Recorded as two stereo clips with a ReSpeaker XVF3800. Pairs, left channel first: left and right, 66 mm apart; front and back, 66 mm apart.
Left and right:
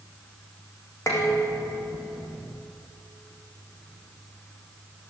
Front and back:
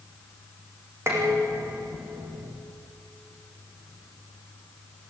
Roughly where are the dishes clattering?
Behind left.